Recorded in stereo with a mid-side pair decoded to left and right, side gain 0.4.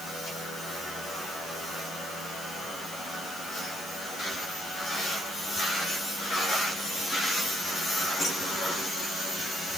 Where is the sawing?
No sawing in this recording.